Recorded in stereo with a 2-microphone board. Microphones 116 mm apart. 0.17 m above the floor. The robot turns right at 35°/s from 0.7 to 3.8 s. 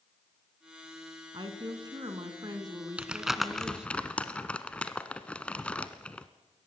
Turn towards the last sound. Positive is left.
turn(degrees=10)  # may be behind; listen again after turning